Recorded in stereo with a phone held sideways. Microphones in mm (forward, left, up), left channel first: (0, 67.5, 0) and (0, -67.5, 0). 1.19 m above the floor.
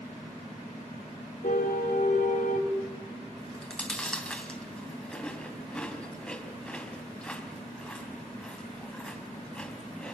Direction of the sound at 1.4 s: 75° left (ahead or behind).